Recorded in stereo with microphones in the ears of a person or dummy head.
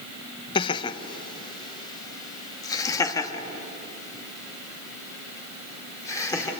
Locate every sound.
0.6 s laughter: 30° left (ahead or behind), 1.0 m; by 6.5 s 15° left (ahead or behind), 4 m